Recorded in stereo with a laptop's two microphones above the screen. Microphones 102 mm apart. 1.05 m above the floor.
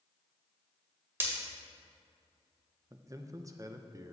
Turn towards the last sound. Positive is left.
turn(degrees=-30)  # may be behind; listen again after turning